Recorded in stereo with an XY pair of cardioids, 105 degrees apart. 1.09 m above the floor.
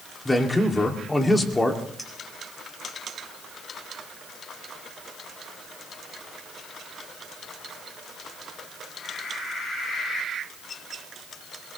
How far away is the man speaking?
About 2 m.